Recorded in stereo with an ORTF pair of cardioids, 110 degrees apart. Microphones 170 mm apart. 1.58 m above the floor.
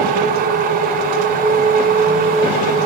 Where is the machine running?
70° right, 4 m.